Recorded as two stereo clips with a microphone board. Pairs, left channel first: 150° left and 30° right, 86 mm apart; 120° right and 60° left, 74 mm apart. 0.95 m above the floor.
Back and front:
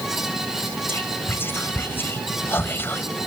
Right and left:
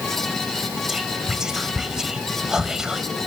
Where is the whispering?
135° left, 0.5 m.